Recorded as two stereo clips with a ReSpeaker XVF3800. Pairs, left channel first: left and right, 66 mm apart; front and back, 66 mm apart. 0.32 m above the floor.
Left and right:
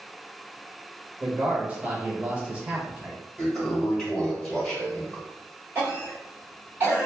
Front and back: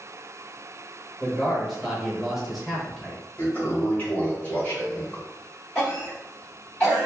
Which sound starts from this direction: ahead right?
A cough, at 5.8 s.